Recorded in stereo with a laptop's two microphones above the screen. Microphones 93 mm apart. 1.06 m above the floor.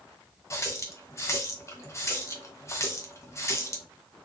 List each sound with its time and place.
0.5 s a running tap: 30° left (ahead or behind), 0.6 m